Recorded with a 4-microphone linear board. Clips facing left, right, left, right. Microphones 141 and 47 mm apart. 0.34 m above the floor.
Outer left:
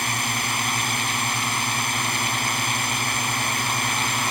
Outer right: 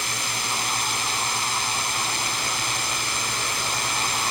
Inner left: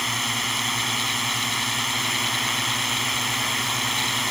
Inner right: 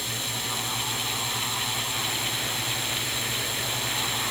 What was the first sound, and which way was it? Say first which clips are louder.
A drone: outer left 4 dB, inner left 7 dB; 60° left (ahead or behind).